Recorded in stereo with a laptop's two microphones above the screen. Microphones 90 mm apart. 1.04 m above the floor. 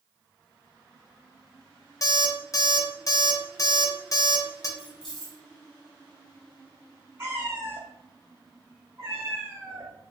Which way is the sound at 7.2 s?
25° right (ahead or behind).